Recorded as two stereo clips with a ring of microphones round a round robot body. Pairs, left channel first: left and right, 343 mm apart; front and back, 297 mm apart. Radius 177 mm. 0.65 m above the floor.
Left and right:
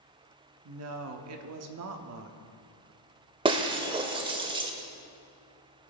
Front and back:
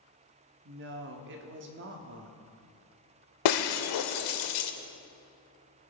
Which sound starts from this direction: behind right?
A woman speaking, at 0.7 s.